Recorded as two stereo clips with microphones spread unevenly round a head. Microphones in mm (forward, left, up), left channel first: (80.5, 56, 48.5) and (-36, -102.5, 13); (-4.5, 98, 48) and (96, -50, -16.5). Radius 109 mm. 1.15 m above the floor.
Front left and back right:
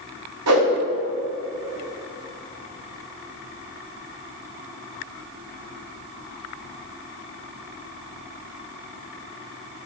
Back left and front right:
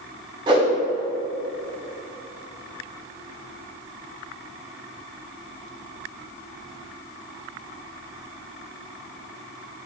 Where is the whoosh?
135° right, 1.4 m.